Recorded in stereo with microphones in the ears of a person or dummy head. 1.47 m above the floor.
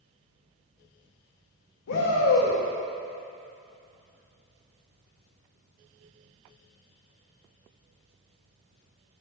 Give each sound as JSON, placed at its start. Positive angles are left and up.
{"t": 1.9, "sound": "a shout", "side_deg": 70, "distance_m": 1.1}